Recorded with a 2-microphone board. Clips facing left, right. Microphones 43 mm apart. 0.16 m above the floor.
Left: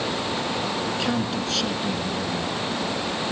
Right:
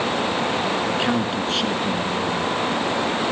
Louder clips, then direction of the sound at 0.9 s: Right 4 dB; 25° right (ahead or behind).